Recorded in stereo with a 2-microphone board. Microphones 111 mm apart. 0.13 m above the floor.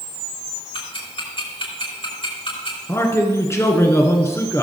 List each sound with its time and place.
0.7 s ticking: 55° left (ahead or behind), 5 m
2.9 s a man speaking: 25° left (ahead or behind), 1.5 m